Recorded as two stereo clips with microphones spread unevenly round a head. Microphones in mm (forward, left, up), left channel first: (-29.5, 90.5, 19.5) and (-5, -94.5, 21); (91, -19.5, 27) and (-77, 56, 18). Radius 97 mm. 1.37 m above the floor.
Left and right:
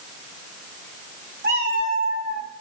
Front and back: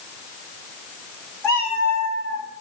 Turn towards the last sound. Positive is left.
turn(degrees=-130)